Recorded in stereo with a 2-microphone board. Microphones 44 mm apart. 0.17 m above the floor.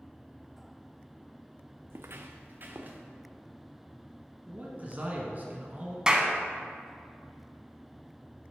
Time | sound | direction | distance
1.9 | footsteps | 75° right (ahead or behind) | 0.6 m
4.5 | a man speaking | 40° right (ahead or behind) | 1.4 m
6.1 | a clap | 20° right (ahead or behind) | 0.8 m